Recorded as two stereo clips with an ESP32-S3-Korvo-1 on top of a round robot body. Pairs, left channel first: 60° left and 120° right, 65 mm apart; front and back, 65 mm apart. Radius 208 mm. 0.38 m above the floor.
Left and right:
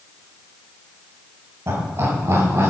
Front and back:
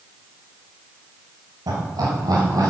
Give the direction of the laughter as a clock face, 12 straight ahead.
6 o'clock.